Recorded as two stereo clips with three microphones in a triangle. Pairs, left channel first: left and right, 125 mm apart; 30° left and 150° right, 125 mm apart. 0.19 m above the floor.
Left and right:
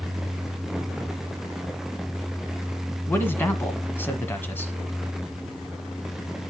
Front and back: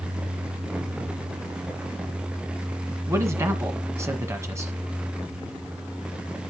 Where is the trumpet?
I don't hear a trumpet.